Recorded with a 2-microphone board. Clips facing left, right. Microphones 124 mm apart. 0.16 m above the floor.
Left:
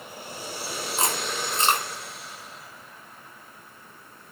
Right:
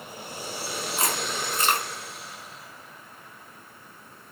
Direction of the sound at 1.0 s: 25° left (ahead or behind).